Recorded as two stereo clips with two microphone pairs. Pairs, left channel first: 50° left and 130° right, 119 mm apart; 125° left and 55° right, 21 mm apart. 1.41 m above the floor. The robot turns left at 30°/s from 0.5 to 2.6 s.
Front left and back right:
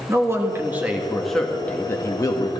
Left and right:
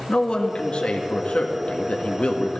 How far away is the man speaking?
About 1.7 m.